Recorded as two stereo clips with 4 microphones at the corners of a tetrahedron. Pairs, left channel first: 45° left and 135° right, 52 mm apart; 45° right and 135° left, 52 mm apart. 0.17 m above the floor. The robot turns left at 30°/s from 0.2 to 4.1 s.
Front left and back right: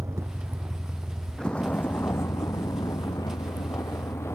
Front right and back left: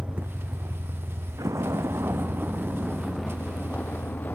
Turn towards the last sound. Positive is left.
turn(degrees=5)